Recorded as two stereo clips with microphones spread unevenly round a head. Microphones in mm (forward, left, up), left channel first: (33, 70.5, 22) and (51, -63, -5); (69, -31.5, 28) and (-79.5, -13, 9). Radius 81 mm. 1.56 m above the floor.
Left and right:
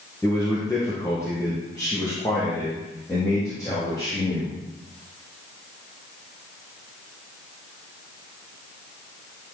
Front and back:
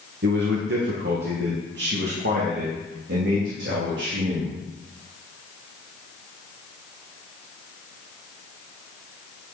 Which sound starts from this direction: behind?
A man speaking, at 0.2 s.